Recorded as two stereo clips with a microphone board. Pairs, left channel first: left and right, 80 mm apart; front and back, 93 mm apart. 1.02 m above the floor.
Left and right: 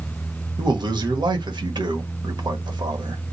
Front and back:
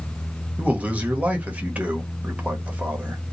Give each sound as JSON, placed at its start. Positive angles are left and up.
{"t": 0.6, "sound": "a man speaking", "azimuth_deg": -105, "distance_m": 1.3}